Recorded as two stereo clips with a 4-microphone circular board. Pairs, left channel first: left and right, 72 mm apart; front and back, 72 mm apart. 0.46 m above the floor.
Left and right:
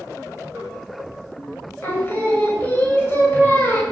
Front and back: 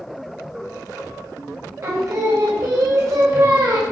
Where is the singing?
145° left, 1.7 m.